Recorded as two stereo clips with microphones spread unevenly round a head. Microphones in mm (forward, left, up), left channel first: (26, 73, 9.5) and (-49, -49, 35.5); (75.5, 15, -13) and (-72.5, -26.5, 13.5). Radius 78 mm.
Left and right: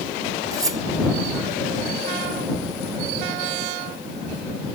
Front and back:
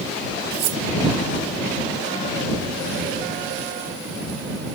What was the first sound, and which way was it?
Cutlery clinking, 170° left.